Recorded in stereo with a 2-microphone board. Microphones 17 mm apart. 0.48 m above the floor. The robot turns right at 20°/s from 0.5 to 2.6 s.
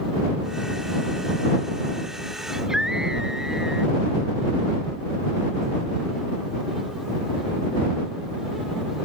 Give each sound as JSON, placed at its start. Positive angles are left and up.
{"t": 2.5, "sound": "a scream", "side_deg": -40}